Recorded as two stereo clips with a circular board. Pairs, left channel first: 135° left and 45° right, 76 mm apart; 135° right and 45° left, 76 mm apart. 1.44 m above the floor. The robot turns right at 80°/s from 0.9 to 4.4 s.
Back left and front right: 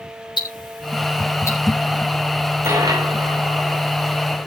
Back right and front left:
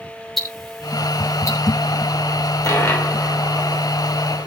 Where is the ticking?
135° left, 3.5 m; by 1.6 s 170° right, 3.5 m.